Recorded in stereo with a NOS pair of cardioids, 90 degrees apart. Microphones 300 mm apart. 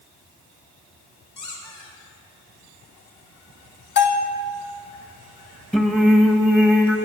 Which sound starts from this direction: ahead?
Singing, at 5.7 s.